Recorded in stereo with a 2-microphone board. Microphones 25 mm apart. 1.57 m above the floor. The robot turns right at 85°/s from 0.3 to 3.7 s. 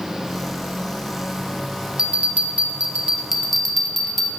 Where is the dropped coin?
No dropped coin in this recording.